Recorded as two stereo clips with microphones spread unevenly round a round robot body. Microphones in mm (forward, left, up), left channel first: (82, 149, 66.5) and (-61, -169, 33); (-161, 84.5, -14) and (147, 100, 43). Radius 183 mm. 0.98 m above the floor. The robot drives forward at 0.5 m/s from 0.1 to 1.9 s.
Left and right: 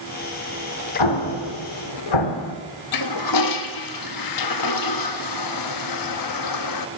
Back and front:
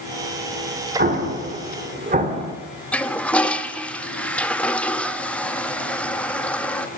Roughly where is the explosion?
Ahead left.